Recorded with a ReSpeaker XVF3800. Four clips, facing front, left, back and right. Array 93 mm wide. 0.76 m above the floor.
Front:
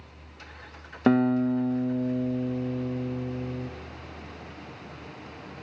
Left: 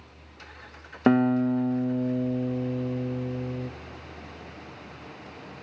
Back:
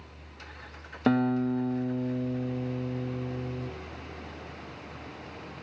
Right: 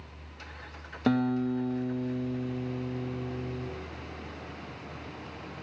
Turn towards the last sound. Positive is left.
turn(degrees=70)